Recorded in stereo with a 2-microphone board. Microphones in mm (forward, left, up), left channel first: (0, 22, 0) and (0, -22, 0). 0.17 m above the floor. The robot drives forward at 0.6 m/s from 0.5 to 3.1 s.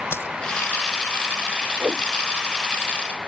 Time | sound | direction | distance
0.1 | a dropped coin | 65° left (ahead or behind) | ?
1.8 | a whoosh | 45° right (ahead or behind) | ?